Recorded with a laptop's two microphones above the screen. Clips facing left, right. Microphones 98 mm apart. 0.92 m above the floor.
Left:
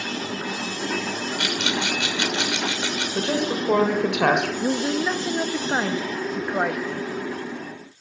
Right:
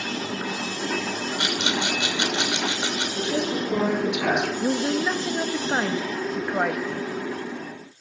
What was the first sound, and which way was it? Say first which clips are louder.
A rattle: even; 25° right (ahead or behind).